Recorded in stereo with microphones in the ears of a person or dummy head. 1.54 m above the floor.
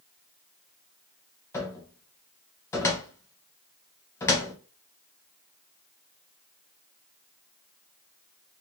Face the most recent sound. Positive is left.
turn(degrees=10)  # may be behind; listen again after turning